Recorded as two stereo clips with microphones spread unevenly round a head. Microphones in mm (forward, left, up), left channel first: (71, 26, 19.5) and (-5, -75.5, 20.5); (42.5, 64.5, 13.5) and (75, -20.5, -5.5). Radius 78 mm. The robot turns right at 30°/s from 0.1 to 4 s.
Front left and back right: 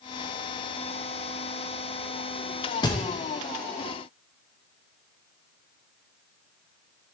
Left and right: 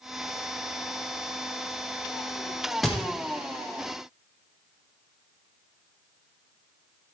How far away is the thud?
About 0.9 m.